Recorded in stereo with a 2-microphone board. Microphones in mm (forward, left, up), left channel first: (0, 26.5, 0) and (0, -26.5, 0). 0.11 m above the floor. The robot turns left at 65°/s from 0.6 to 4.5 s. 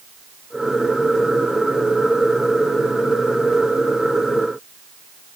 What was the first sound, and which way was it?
Only background noise.